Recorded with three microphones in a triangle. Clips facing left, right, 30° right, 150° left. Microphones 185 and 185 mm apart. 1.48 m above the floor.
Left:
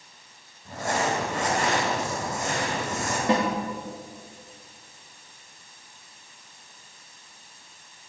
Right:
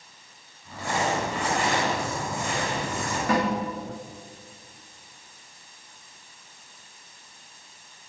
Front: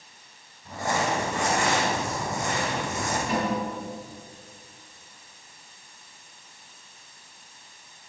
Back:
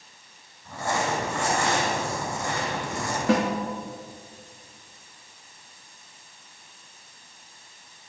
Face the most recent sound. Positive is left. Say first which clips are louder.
# left 1 dB, back 7 dB
turn(degrees=155)